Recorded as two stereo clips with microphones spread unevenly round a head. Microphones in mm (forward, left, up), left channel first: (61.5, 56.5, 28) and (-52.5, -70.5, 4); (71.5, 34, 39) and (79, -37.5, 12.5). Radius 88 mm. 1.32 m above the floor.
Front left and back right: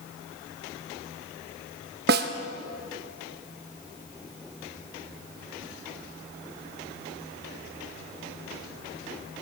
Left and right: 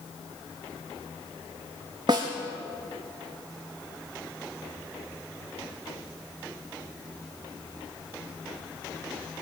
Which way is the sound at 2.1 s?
150° right.